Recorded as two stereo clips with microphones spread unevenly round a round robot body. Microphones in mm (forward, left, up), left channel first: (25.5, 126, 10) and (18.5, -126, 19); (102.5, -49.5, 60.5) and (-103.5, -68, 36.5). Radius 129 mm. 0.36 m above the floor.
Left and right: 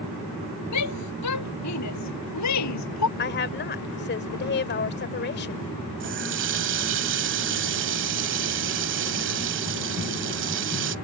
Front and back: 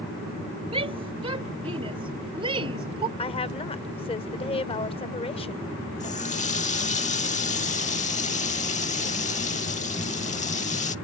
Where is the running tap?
50° right.